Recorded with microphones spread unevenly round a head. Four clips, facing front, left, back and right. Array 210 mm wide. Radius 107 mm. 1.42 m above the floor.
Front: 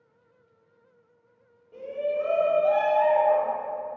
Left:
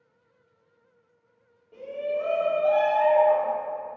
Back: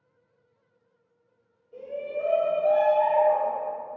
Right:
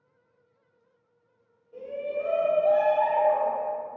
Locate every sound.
1.7 s a shout: 110° left, 1.7 m; by 3.5 s 90° left, 2.5 m